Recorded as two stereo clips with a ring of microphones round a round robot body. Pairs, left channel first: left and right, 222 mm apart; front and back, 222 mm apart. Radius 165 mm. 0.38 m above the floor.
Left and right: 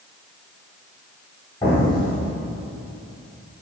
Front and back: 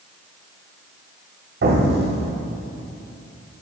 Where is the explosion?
165° left, 1.5 m.